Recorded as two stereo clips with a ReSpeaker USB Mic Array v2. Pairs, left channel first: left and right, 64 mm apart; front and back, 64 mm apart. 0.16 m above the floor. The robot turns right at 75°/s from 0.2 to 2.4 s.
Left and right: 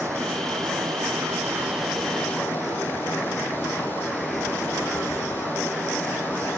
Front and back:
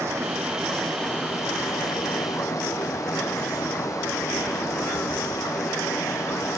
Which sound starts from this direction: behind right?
Running water, at 0.0 s.